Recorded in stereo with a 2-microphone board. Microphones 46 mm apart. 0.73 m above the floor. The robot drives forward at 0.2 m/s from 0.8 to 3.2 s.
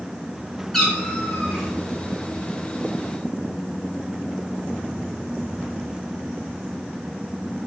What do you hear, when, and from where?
0.7 s a cat meowing: 10° left (ahead or behind), 1.2 m; by 1.7 s 5° left (ahead or behind), 1.3 m